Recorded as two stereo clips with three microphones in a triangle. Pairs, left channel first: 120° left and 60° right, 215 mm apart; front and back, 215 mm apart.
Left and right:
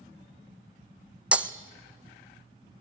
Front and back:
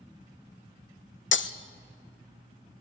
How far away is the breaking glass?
About 0.7 m.